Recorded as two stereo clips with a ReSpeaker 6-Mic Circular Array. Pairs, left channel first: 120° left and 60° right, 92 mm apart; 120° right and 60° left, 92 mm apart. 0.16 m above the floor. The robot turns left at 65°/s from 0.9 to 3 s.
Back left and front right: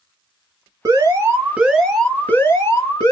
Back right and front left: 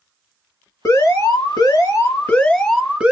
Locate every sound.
0.8 s an alarm: 85° right, 1.8 m; by 3.1 s 135° left, 1.8 m